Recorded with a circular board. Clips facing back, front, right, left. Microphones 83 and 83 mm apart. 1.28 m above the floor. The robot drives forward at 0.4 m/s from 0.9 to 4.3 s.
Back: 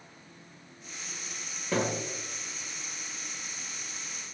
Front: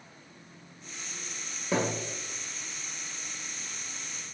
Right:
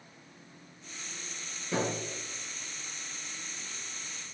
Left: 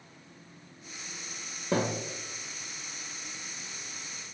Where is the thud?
80° left, 2.5 m.